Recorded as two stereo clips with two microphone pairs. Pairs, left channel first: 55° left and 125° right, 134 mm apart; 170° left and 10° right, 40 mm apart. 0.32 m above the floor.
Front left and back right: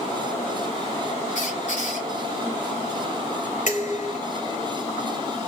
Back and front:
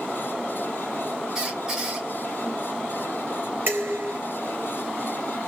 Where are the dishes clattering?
35° left, 4 m.